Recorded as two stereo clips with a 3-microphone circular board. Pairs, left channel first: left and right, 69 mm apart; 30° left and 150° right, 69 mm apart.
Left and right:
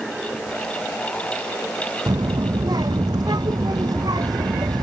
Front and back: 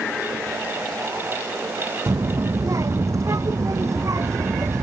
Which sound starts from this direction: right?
A child speaking, at 2.1 s.